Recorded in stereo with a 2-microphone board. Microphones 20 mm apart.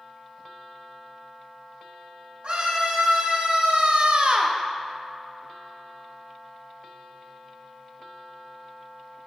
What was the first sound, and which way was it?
A scream, 65° right (ahead or behind).